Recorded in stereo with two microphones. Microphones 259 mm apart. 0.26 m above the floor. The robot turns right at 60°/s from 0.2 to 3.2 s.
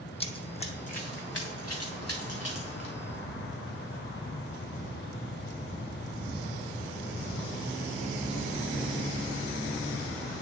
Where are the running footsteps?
25° left (ahead or behind), 0.6 m; by 2.9 s 40° left (ahead or behind), 3 m.